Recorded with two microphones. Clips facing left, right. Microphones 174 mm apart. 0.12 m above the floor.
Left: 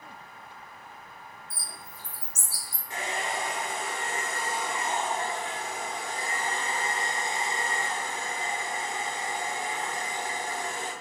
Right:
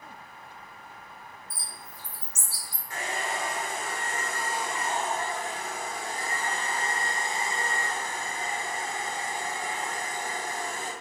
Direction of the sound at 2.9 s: 25° left (ahead or behind).